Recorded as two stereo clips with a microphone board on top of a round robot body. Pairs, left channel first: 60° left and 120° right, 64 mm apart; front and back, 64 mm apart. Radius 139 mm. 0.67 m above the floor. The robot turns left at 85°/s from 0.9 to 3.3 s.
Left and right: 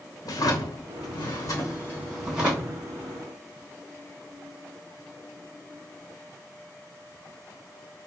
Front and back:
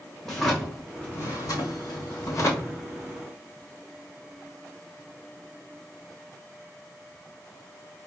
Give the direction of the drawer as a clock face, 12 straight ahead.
9 o'clock.